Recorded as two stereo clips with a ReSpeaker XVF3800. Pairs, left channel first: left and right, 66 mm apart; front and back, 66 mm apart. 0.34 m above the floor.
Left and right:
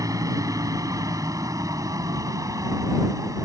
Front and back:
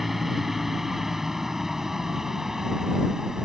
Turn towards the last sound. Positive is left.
turn(degrees=-100)